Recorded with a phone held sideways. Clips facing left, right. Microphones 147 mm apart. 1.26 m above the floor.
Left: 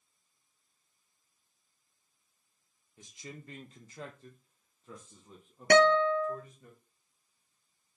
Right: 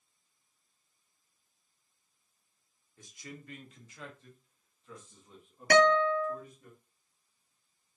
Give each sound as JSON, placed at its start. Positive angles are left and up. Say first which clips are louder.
{"t": 3.0, "sound": "a man speaking", "louder": "even", "side_deg": 20, "distance_m": 0.7}
{"t": 5.7, "sound": "a guitar", "louder": "left 1 dB", "side_deg": 25, "distance_m": 0.5}